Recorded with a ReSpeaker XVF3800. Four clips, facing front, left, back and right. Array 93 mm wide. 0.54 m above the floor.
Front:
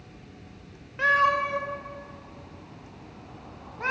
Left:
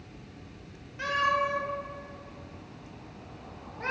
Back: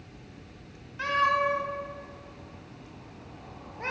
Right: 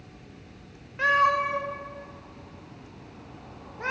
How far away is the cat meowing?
About 0.8 m.